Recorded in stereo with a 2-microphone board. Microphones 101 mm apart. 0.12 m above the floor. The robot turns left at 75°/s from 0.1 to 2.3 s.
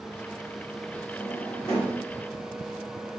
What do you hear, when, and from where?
1.1 s a drawer: 35° right (ahead or behind), 1.7 m; by 2.0 s 25° left (ahead or behind), 1.7 m